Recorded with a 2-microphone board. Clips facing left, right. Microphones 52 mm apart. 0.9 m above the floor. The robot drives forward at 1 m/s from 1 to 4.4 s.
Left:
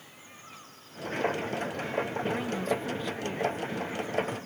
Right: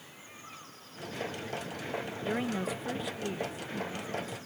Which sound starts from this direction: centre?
A woman speaking, at 2.2 s.